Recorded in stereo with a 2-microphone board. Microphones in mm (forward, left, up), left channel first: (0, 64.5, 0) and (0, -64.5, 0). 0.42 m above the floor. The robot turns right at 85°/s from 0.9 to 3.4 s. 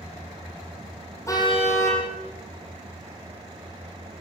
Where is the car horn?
25° left, 6 m; by 2.0 s 85° left, 6 m.